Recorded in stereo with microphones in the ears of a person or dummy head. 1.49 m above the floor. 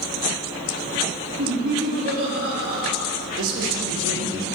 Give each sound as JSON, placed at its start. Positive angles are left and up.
{"t": 1.4, "sound": "laughter", "side_deg": -55, "distance_m": 3.5}
{"t": 3.4, "sound": "a man speaking", "side_deg": -65, "distance_m": 1.7}